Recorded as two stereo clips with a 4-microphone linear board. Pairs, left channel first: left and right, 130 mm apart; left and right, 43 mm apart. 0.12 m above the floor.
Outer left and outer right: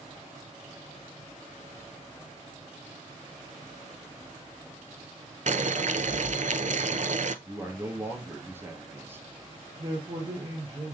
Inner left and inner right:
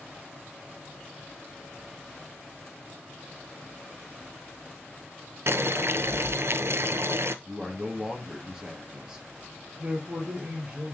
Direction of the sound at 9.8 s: 30° right (ahead or behind).